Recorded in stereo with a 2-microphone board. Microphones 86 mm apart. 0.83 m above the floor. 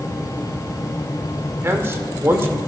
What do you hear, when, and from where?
1.6 s a man speaking: 30° right (ahead or behind), 2 m